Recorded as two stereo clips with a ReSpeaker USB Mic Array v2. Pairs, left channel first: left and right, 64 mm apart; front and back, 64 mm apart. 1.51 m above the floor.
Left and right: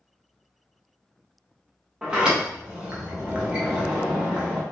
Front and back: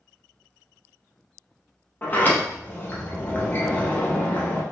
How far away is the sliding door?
About 0.6 m.